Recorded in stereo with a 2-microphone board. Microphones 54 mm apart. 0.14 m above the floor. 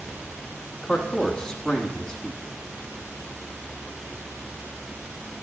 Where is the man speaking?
15° left (ahead or behind), 1.1 m.